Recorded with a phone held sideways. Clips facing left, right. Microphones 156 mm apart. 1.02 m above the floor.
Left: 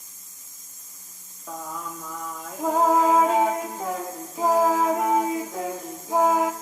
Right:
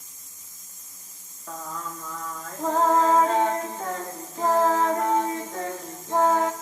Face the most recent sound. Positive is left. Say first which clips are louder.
# left 1 dB
turn(degrees=10)  # may be behind; listen again after turning